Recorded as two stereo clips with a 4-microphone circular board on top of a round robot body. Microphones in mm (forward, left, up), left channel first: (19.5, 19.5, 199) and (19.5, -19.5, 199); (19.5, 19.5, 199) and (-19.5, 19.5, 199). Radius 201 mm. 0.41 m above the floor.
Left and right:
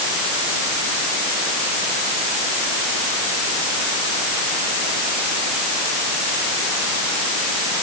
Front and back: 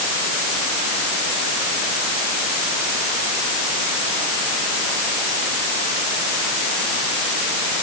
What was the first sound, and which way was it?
Only background noise.